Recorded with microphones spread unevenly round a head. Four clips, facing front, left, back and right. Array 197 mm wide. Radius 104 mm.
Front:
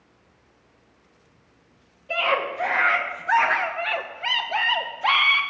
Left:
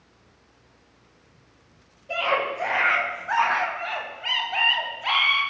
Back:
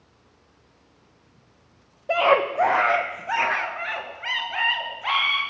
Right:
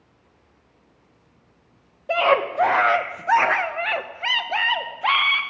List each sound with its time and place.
2.1 s a scream: 145° right, 1.1 m; by 5.4 s 45° right, 1.4 m